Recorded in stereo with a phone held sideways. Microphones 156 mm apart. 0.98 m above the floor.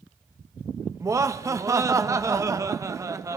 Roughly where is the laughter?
Right.